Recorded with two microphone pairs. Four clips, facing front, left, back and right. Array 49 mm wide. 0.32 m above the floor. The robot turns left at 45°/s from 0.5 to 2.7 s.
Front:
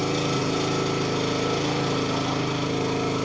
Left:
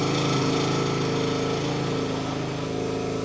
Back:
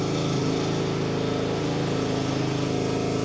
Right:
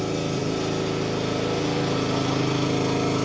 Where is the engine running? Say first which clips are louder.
Left 2 dB, front 1 dB; 55° left, 2.5 m; by 3.3 s 45° right, 2.5 m.